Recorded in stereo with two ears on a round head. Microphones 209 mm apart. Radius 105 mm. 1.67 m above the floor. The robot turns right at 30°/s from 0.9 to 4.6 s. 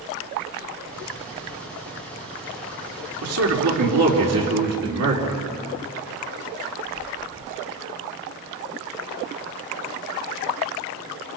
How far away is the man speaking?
About 4 m.